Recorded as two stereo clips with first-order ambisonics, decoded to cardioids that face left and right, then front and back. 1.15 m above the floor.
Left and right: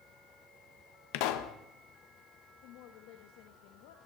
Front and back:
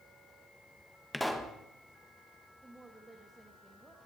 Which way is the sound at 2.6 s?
100° left.